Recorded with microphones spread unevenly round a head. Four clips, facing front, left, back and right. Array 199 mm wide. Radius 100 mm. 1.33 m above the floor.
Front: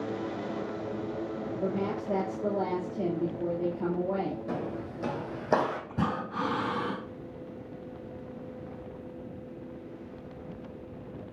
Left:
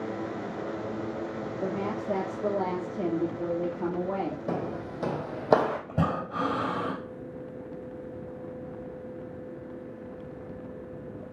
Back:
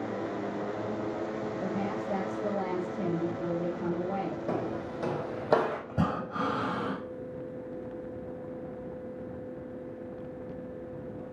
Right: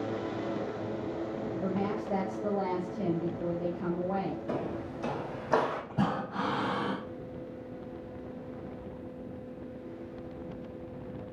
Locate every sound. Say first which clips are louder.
1.6 s a woman speaking: left 2 dB, front 4 dB; 70° left, 2.5 m
4.5 s footsteps: left 2 dB, back 2 dB; 105° left, 3 m; by 5.8 s 85° left, 3.5 m
5.9 s breathing: left 2 dB, even; 100° left, 6.5 m